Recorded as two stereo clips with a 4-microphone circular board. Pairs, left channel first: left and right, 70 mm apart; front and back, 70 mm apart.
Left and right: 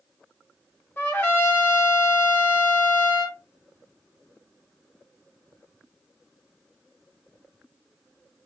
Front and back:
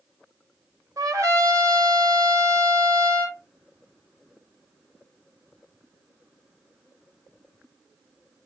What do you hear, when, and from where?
1.0 s a trumpet: 145° left, 1.1 m